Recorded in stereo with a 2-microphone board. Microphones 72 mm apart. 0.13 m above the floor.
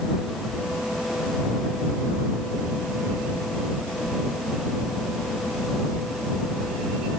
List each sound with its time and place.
Only background noise.